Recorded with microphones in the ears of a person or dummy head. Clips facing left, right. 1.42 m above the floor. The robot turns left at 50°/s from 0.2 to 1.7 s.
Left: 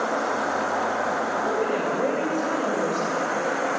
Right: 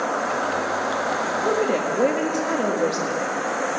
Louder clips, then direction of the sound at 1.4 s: Right 5 dB; 60° right (ahead or behind).